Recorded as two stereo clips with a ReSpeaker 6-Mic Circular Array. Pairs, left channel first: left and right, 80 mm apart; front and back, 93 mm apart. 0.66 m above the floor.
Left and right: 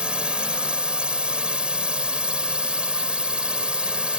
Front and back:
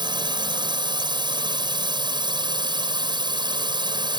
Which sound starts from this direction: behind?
A drone, at 0.0 s.